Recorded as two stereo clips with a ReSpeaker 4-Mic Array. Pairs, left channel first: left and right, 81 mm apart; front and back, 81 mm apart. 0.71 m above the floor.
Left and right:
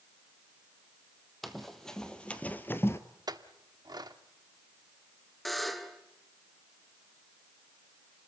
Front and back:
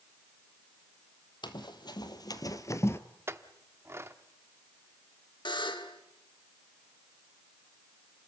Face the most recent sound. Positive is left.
turn(degrees=0)